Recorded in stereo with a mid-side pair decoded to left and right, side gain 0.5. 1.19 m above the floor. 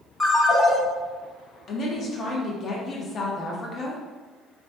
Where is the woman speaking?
45° left, 1.0 m.